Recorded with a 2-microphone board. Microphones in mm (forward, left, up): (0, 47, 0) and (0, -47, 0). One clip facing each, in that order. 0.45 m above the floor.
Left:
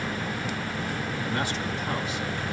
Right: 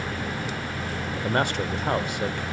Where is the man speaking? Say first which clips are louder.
Right 7 dB; 55° right (ahead or behind), 1.1 m.